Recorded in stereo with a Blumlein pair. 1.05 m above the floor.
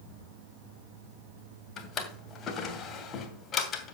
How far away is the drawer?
About 2 m.